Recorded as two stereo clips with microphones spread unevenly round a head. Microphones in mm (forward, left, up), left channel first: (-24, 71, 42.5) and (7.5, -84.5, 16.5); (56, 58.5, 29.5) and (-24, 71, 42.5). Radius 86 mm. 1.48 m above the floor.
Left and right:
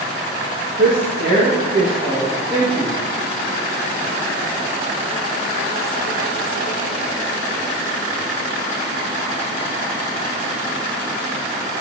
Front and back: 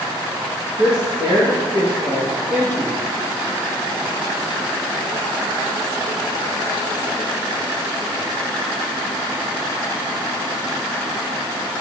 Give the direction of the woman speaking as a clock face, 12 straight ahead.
4 o'clock.